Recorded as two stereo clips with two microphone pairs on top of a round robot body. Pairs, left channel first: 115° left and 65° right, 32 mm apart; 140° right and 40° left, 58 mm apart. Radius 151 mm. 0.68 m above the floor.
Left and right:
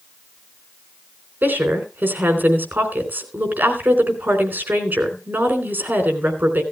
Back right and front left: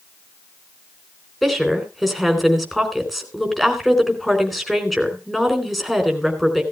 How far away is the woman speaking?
About 4 m.